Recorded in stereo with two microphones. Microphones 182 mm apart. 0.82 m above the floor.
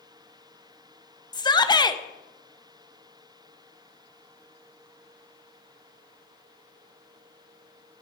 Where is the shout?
20° left (ahead or behind), 0.7 m.